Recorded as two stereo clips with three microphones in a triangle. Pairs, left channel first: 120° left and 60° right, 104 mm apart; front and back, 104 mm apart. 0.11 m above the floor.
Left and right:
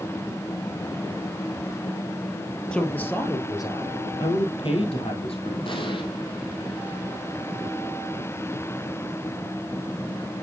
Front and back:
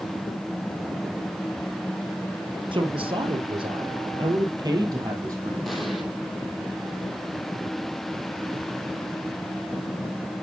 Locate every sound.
2.7 s a woman speaking: 160° right, 2 m; by 5.5 s 125° left, 3 m
5.7 s an explosion: 90° left, 2.5 m